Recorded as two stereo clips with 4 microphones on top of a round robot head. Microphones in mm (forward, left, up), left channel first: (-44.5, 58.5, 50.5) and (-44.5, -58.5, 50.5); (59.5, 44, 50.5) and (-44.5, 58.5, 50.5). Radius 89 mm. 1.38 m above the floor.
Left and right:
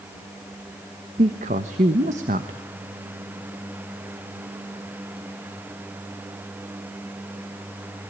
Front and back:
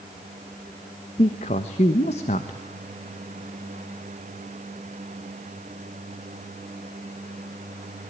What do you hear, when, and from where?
1.2 s a man speaking: 50° right, 1.3 m